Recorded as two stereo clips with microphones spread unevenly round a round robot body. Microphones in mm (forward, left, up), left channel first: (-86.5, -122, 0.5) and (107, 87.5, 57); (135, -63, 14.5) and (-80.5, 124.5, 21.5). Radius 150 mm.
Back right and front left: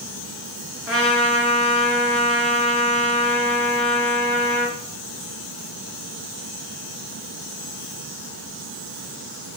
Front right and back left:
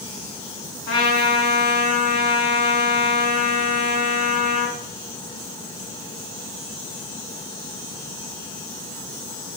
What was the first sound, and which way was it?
A trumpet, 40° right.